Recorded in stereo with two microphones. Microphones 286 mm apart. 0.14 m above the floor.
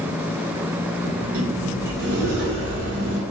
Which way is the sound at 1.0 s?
55° right (ahead or behind).